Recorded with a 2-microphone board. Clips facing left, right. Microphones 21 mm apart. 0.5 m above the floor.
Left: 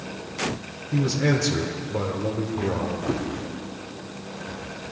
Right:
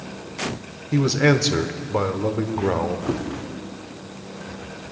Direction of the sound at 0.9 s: 50° right (ahead or behind).